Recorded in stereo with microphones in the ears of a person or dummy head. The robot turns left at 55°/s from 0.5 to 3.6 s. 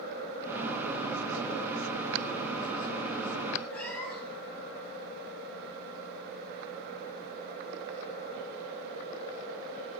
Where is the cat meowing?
5° left (ahead or behind), 5.5 m.